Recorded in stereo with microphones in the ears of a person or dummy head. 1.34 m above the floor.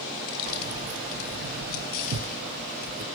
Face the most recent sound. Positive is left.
turn(degrees=-50)  # may be behind; listen again after turning